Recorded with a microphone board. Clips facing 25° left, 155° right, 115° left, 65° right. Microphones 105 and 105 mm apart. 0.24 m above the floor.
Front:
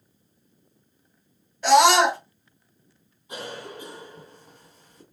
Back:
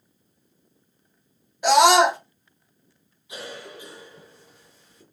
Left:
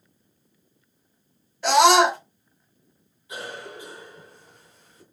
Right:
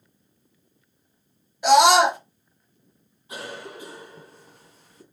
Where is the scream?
115° right, 1.1 m.